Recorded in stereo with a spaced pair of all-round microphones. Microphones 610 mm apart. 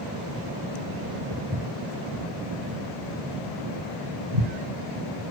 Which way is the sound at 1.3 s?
15° right (ahead or behind).